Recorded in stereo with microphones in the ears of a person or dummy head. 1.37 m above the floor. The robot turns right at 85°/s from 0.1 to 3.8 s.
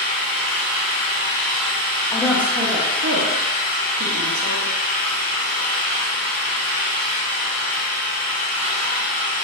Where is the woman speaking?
15° left (ahead or behind), 0.6 m; by 4.7 s 50° right (ahead or behind), 0.6 m.